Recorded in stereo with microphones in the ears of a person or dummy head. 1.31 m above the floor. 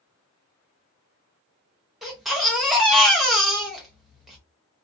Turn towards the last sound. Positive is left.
turn(degrees=-5)  # may be behind; listen again after turning